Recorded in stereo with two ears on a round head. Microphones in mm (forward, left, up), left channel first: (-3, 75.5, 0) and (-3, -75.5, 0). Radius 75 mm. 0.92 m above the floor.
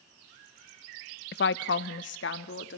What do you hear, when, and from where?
1.3 s a woman speaking: 60° left (ahead or behind), 0.5 m; by 2.8 s 80° left, 1.7 m